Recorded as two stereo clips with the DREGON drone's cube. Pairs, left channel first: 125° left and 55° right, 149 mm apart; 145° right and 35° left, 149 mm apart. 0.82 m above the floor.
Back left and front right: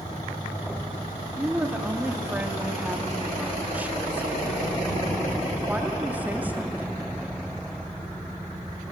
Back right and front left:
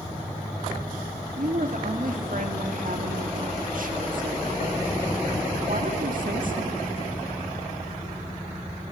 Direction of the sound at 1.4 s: 20° left.